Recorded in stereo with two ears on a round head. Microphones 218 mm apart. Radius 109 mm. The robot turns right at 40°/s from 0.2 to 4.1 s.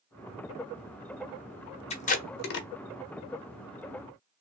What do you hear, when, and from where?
1.9 s tape being pulled: 25° left (ahead or behind), 0.7 m; by 2.7 s 45° left (ahead or behind), 0.7 m